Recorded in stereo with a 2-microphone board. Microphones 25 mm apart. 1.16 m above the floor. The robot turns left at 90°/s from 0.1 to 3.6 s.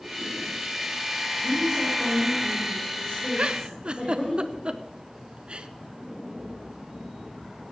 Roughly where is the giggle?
Right.